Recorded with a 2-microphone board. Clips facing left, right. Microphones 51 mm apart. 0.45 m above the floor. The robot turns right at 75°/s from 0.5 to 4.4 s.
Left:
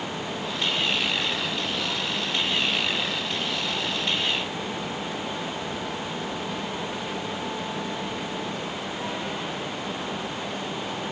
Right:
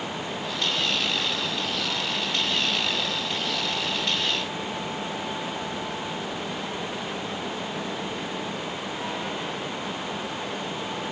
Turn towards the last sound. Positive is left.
No sound to turn to.